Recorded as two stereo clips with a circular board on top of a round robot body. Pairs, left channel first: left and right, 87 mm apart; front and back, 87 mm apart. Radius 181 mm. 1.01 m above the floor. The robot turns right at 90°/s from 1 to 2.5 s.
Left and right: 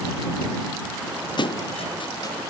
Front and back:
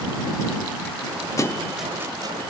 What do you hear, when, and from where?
1.4 s a thud: 55° left; by 2.4 s 145° left